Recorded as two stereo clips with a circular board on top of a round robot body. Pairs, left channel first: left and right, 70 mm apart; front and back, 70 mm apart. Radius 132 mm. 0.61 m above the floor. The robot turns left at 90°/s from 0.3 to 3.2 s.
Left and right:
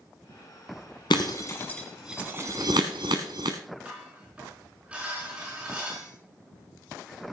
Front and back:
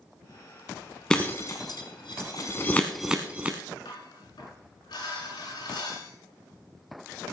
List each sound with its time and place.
1.1 s breaking glass: 80° left, 0.5 m; by 3.6 s 110° right, 0.5 m
3.9 s dishes clattering: 15° right, 5.5 m